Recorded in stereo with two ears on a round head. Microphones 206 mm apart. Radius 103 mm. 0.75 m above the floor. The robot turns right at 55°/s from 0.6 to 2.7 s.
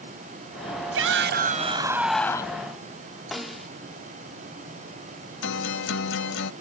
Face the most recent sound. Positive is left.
turn(degrees=55)  # may be behind; listen again after turning